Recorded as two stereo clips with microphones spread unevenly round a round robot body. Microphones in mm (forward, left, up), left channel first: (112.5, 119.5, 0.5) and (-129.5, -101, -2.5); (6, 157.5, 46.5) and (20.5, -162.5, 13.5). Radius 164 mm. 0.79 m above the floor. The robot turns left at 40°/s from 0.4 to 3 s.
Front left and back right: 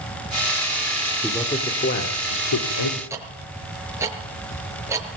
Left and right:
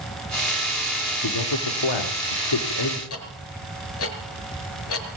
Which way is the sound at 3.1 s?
140° left.